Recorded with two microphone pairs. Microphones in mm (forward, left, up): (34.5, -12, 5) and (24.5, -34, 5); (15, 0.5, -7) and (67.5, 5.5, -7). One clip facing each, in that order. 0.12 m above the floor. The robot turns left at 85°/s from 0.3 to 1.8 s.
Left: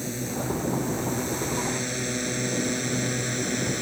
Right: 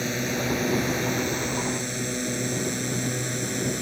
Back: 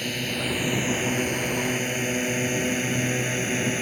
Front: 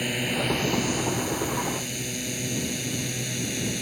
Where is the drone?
70° right; by 3.8 s 150° left.